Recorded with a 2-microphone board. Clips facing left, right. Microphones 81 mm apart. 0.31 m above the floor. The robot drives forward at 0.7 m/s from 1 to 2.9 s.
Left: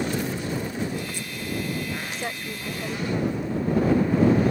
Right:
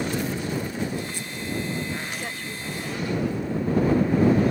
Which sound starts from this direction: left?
A woman speaking, at 2.1 s.